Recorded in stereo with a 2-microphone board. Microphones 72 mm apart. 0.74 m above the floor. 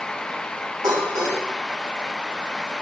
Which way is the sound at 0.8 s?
65° right (ahead or behind).